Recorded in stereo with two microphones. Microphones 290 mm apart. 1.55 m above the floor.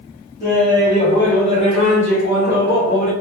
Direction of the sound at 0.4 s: 10° right (ahead or behind).